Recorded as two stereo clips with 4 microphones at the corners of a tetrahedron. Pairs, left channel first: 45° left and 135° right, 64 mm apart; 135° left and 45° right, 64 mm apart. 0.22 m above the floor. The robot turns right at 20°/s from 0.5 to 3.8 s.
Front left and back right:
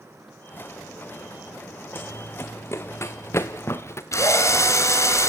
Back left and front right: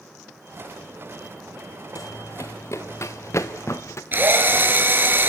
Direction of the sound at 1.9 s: 100° left.